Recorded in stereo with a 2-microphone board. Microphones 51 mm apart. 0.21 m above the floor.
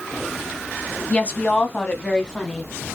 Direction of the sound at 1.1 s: 25° left (ahead or behind).